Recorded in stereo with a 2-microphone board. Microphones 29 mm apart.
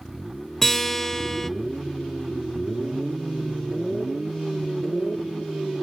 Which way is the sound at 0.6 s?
15° left (ahead or behind).